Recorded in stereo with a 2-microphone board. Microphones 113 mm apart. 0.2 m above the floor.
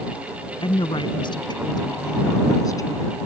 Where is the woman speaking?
45° left (ahead or behind); by 3.1 s 30° left (ahead or behind).